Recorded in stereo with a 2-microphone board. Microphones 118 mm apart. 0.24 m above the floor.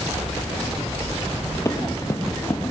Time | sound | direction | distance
1.6 | running footsteps | 25° left (ahead or behind) | 2.5 m